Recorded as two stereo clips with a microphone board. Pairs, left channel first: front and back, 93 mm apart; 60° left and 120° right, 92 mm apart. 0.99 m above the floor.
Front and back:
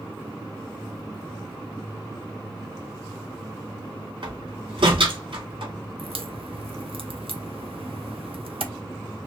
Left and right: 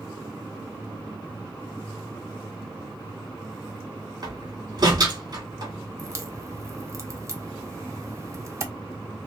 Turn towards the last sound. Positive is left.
turn(degrees=-175)